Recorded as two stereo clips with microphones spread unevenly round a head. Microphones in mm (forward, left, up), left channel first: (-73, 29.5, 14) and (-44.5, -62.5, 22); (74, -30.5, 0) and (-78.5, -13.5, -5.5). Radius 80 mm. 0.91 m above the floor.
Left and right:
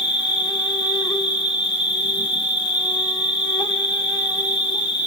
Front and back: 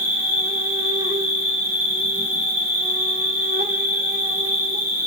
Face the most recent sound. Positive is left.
turn(degrees=100)